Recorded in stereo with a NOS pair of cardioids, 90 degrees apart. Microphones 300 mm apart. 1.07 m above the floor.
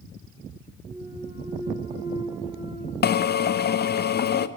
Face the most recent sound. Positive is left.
turn(degrees=35)